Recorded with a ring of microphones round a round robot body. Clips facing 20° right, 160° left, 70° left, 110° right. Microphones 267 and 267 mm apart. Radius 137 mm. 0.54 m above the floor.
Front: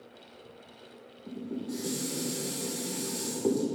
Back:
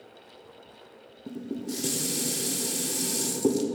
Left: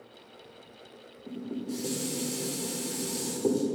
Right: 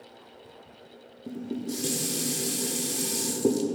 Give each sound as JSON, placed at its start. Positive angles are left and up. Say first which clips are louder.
{"t": 1.3, "sound": "dishes clattering", "louder": "back 2 dB, right 2 dB", "azimuth_deg": -170, "distance_m": 0.9}